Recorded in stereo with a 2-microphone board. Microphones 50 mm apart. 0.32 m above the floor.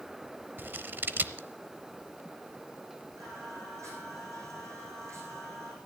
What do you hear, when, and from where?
0.6 s scissors: 45° right (ahead or behind), 0.7 m
3.2 s singing: 80° right, 5 m